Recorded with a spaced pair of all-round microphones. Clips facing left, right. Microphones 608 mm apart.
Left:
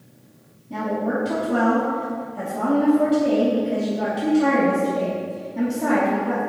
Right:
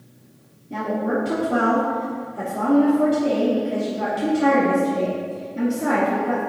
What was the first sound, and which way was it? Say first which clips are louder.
A woman speaking: right 1 dB; 25° left (ahead or behind).